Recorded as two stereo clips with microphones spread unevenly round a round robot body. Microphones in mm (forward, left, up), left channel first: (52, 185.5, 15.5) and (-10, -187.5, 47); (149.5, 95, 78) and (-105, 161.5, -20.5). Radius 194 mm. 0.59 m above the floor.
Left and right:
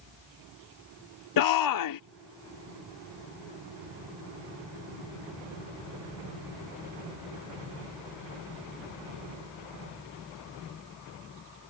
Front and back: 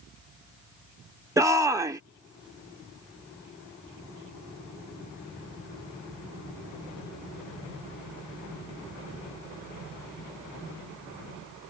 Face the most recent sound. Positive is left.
turn(degrees=100)